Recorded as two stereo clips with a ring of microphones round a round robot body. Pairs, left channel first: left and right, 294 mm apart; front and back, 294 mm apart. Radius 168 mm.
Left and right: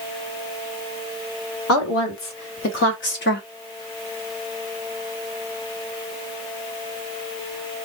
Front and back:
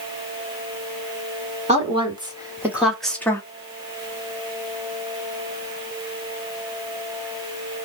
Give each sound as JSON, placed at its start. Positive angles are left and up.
{"t": 1.7, "sound": "a woman speaking", "azimuth_deg": 115, "distance_m": 2.0}